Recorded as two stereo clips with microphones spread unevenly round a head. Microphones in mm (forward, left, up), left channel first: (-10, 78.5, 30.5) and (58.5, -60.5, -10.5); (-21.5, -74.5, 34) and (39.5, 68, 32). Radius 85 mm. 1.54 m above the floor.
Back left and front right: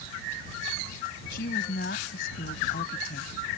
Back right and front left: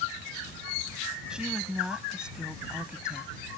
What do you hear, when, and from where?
1.3 s a woman speaking: 150° left